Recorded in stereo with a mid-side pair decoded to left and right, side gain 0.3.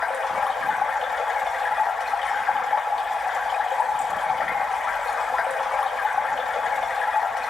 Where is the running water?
65° left, 3.5 m.